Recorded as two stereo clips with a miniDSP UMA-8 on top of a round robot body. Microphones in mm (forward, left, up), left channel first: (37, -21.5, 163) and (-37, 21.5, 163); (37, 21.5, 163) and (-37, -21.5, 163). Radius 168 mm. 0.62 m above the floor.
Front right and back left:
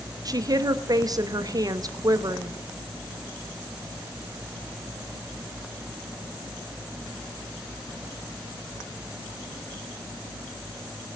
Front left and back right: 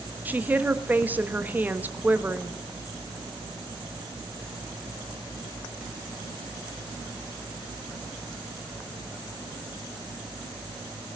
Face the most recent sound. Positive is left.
turn(degrees=150)